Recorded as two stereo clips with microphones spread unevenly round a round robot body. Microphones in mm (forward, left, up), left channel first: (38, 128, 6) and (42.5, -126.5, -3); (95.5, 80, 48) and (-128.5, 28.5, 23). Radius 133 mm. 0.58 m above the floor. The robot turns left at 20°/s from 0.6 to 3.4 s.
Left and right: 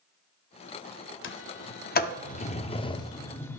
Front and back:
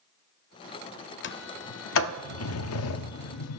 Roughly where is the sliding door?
Ahead left.